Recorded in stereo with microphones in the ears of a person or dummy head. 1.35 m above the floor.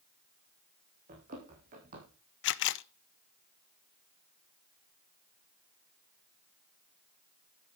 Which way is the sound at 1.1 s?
45° right (ahead or behind).